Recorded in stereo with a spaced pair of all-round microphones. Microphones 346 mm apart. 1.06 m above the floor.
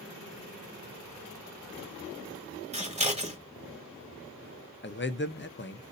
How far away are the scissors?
About 1.3 m.